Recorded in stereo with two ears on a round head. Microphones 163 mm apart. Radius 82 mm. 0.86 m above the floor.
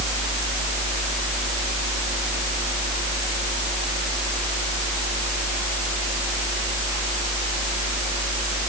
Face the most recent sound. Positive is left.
No sound to turn to.